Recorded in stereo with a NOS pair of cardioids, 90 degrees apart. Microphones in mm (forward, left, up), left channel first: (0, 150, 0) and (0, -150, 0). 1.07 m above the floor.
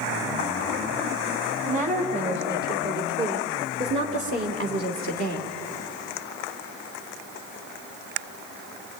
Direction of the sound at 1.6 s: 25° right.